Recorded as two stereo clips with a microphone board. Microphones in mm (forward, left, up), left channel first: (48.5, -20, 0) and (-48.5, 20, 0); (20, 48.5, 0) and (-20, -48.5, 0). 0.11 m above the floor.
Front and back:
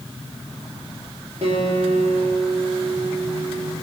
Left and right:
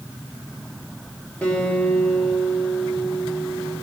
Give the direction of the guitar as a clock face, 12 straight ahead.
7 o'clock.